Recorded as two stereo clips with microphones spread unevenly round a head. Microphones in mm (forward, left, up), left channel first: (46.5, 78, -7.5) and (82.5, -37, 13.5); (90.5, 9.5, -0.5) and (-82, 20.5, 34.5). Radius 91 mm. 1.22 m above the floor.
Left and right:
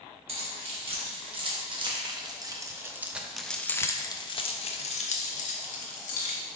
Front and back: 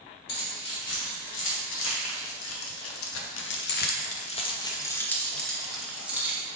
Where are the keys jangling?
40° right, 2 m; by 6.4 s 95° left, 1.6 m.